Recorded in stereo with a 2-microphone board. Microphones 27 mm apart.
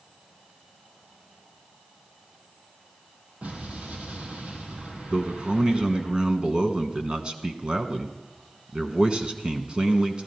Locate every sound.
3.4 s an explosion: 75° right (ahead or behind), 3.5 m
5.1 s a man speaking: 40° right (ahead or behind), 1.3 m